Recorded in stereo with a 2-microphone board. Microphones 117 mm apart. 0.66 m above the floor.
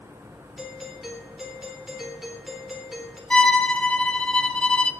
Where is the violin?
10° left (ahead or behind), 1.4 m.